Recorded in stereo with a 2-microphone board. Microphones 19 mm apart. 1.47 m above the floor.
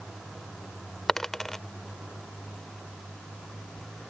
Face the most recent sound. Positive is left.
turn(degrees=20)  # may be behind; listen again after turning